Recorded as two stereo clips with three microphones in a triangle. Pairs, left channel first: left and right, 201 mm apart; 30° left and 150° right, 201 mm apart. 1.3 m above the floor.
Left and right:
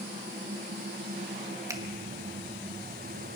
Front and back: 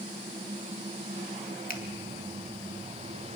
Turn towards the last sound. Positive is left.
turn(degrees=-15)